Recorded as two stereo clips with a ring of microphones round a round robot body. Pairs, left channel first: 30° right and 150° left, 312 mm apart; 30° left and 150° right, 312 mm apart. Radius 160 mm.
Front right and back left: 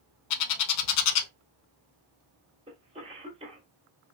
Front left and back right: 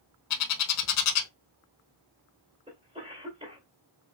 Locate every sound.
0.3 s a bird: 15° right, 0.6 m
2.7 s a cough: 175° left, 1.5 m